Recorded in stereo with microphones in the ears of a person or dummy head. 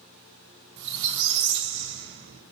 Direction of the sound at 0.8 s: 60° right (ahead or behind).